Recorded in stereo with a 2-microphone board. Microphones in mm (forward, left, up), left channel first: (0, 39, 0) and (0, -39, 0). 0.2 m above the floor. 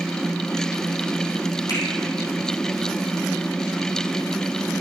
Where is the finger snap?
55° left (ahead or behind), 5 m.